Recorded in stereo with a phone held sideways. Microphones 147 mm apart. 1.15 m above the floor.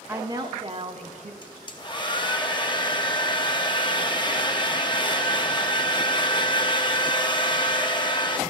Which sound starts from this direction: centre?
A woman speaking, at 0.1 s.